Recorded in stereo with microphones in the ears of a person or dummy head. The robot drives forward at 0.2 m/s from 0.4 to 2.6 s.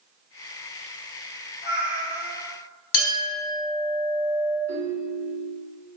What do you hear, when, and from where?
1.6 s a cat meowing: 45° left (ahead or behind), 1.1 m
2.9 s a clink: 65° left (ahead or behind), 1.3 m
4.7 s a ringtone: 40° left (ahead or behind), 1.0 m